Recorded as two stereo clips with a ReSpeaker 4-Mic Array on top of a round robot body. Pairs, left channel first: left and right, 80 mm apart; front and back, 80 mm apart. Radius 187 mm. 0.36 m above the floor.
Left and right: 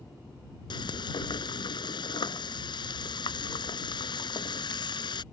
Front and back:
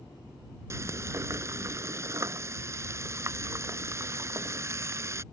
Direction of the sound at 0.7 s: 125° left.